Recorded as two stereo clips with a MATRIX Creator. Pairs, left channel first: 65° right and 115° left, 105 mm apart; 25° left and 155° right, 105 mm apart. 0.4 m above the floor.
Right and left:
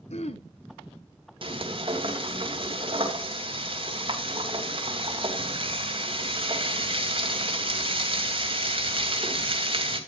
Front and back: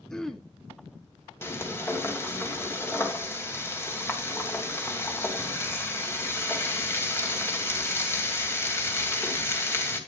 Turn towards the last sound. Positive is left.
turn(degrees=85)